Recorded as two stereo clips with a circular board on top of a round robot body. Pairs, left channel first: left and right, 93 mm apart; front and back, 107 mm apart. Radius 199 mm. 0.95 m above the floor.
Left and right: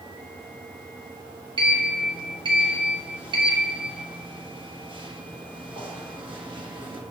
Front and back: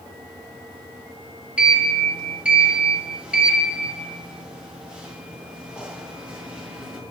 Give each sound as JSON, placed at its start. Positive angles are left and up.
{"t": 1.6, "sound": "a sliding door", "azimuth_deg": -100, "distance_m": 1.0}